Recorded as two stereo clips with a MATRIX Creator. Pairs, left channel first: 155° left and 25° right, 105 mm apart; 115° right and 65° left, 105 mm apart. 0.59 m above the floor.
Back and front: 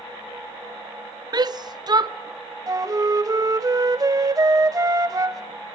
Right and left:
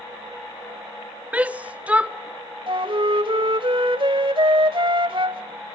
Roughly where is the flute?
Ahead left.